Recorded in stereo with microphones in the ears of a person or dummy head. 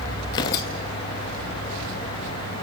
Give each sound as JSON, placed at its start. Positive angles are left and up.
{"t": 0.3, "sound": "tearing paper", "side_deg": 25, "distance_m": 0.7}